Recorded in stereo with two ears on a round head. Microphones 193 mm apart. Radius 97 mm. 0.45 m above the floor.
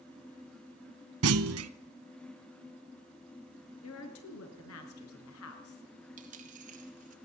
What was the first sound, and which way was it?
A clunk, 75° right (ahead or behind).